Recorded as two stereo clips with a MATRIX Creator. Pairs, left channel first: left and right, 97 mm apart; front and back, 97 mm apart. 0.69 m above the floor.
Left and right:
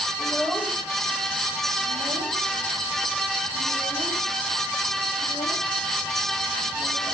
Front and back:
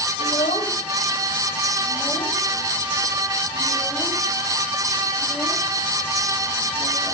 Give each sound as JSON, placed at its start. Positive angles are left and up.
{"t": 0.2, "sound": "a child speaking", "azimuth_deg": -10, "distance_m": 3.0}